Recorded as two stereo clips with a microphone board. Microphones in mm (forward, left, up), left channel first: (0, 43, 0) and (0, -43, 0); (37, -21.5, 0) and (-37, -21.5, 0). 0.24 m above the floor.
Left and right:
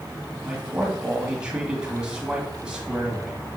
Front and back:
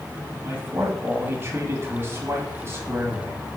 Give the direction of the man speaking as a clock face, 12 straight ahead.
5 o'clock.